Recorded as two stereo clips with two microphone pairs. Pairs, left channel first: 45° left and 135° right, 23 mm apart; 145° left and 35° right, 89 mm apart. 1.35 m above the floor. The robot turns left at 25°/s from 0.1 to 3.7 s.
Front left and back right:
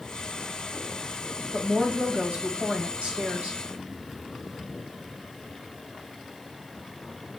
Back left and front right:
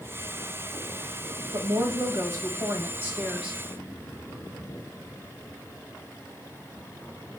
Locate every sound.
1.5 s a woman speaking: 65° right, 1.6 m; by 3.6 s 115° right, 1.6 m